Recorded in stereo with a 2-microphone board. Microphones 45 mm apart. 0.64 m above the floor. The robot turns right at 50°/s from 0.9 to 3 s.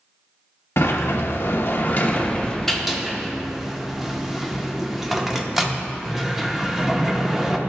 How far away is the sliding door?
About 0.8 m.